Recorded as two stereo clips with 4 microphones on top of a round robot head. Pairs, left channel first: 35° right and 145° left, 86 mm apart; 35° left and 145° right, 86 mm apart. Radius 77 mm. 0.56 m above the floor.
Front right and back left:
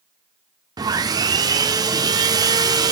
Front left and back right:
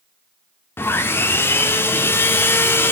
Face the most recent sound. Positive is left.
turn(degrees=100)